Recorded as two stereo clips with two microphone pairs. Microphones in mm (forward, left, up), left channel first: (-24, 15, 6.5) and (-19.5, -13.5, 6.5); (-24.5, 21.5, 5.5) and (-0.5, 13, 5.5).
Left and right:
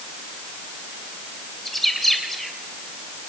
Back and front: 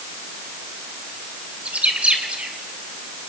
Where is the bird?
15° left, 3 m.